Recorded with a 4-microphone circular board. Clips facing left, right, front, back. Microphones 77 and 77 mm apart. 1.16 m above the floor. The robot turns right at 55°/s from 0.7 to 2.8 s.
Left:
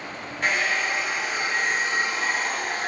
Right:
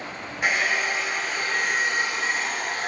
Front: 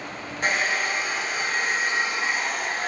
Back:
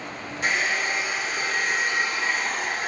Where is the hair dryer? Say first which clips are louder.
Even, front 1 dB; 15° right, 0.7 m; by 2.9 s 100° left, 0.7 m.